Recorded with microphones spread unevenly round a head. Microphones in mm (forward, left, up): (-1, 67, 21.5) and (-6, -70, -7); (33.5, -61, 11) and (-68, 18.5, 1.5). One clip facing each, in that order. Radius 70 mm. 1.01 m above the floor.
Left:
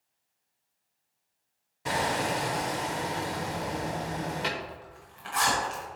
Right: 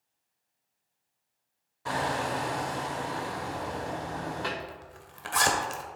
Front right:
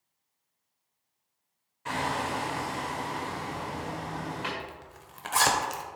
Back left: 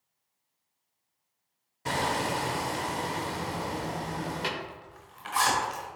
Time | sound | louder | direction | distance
1.9 | hammering | left 1 dB, back left 2 dB | 115° left | 0.8 m
4.6 | a zipper | left 1 dB, even | 60° right | 1.2 m